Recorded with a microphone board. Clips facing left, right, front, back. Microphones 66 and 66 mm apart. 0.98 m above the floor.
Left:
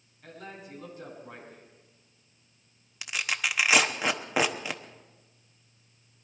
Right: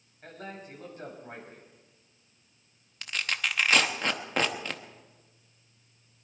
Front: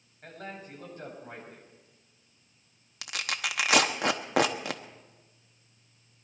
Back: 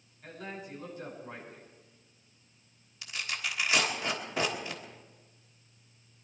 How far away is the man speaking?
About 6 m.